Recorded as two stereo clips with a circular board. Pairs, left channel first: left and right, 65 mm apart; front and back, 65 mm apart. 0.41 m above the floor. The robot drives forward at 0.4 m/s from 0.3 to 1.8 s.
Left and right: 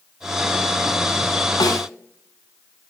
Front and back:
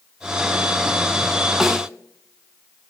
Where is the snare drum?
95° left, 0.8 m; by 1.9 s 100° left, 0.8 m.